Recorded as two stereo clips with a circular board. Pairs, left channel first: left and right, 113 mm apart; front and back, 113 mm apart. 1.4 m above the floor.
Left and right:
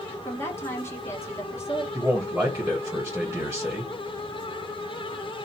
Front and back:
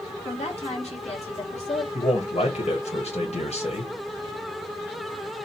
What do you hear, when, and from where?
0.2 s a woman speaking: 20° left, 1.7 m
1.9 s a man speaking: 5° right, 1.5 m